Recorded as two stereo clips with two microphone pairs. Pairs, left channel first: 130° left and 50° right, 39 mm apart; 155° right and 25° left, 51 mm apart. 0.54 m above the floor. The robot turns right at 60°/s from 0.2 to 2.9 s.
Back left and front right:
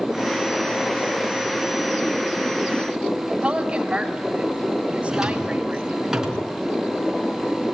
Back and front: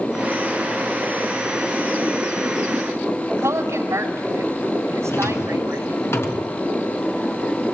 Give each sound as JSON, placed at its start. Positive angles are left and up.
{"t": 3.4, "sound": "a woman speaking", "azimuth_deg": 15, "distance_m": 3.5}
{"t": 5.1, "sound": "a drawer", "azimuth_deg": -125, "distance_m": 4.0}